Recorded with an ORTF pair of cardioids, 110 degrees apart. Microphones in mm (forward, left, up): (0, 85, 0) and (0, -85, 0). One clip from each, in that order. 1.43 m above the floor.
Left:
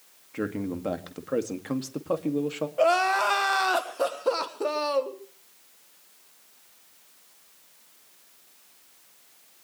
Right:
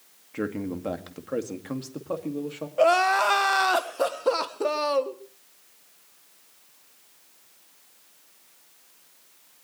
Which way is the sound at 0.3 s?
5° right.